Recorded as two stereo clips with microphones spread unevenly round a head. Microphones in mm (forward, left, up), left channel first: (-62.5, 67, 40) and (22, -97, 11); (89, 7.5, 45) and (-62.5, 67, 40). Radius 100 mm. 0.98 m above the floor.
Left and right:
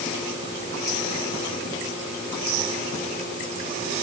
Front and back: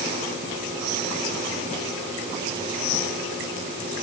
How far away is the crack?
I don't hear a crack.